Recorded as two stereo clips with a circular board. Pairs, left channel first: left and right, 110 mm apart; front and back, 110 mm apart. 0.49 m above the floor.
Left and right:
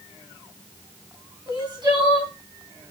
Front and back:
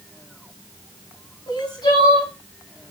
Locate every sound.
1.5 s crying: 45° right, 3.5 m